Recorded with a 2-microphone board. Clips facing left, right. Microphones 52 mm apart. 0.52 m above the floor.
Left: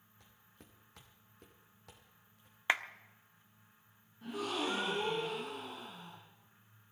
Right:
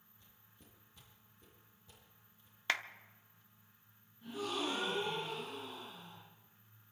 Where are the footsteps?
75° left (ahead or behind), 4 m; by 2.6 s 80° left, 5.5 m.